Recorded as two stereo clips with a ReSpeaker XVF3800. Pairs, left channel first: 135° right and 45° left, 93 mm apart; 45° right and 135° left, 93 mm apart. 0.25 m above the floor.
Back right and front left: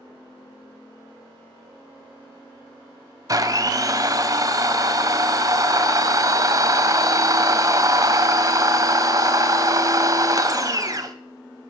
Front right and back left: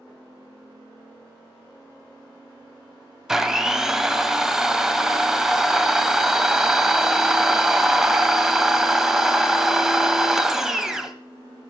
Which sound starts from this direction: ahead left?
A blender, at 3.3 s.